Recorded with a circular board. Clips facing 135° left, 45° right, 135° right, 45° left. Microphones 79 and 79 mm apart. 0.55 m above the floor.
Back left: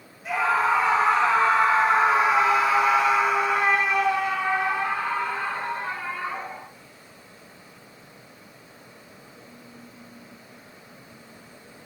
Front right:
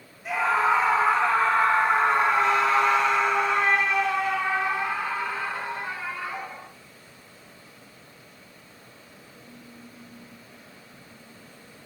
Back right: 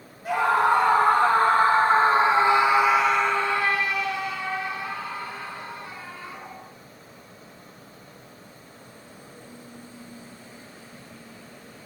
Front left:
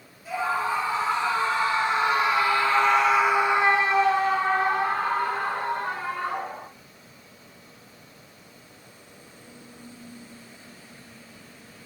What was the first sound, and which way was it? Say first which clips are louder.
A scream: even, back right 6 dB; 135° right.